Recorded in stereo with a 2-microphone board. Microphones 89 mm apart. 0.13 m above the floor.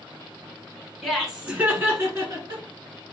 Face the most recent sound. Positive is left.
turn(degrees=-45)  # may be behind; listen again after turning